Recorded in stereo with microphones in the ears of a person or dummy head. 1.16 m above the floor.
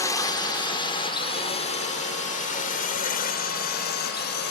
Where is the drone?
20° left (ahead or behind); by 4.5 s 55° left (ahead or behind).